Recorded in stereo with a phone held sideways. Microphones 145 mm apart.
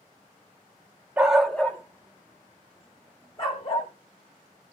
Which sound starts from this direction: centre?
A dog barking, at 1.2 s.